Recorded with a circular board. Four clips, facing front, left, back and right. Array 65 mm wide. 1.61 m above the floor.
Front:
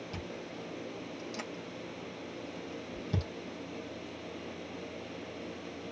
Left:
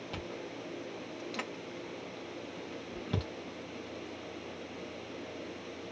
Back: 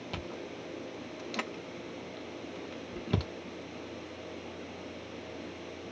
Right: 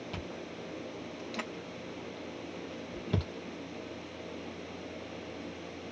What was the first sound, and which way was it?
Chewing, straight behind.